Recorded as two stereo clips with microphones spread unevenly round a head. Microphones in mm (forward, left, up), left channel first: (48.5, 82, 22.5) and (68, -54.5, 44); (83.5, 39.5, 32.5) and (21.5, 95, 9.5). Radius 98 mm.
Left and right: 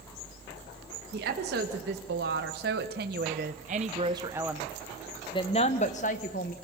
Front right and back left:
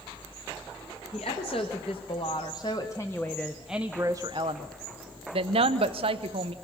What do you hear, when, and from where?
1.1 s a woman speaking: 100° right, 2 m; by 6.5 s 140° left, 1.4 m